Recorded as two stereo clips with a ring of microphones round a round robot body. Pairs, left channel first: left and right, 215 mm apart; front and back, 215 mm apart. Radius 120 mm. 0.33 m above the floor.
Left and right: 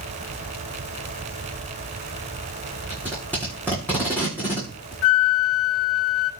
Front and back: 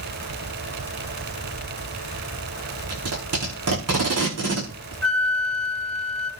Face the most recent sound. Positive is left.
turn(degrees=85)